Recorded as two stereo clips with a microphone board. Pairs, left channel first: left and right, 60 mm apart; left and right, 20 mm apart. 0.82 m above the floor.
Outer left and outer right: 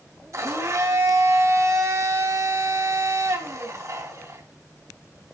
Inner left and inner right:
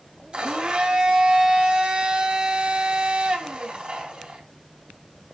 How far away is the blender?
About 3 m.